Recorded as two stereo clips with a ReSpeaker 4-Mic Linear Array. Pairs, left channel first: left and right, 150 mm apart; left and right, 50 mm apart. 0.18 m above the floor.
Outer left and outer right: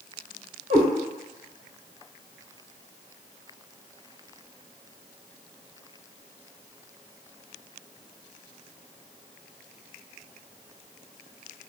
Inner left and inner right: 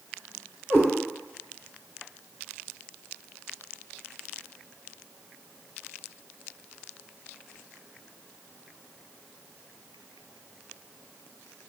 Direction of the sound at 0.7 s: 40° right (ahead or behind).